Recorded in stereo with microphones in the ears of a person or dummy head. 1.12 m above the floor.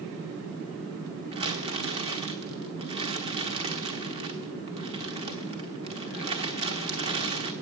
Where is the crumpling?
25° right (ahead or behind), 1.0 m.